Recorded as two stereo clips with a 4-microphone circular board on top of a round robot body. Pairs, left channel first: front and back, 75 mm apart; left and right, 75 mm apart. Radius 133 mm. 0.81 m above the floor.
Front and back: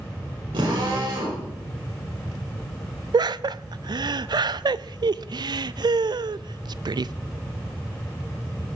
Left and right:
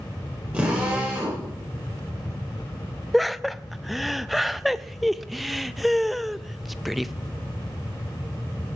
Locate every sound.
0.5 s a drill: 160° right, 9 m
3.1 s laughter: straight behind, 0.6 m